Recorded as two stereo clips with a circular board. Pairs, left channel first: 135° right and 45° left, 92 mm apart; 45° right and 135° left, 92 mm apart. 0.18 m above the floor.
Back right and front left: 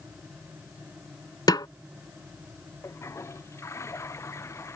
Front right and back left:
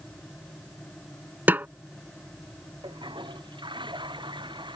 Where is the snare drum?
160° right.